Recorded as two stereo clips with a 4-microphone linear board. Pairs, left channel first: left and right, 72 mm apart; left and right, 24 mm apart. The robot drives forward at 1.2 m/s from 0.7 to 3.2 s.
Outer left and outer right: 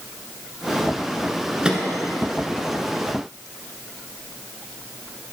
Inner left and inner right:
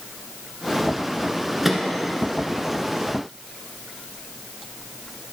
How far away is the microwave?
About 1.0 m.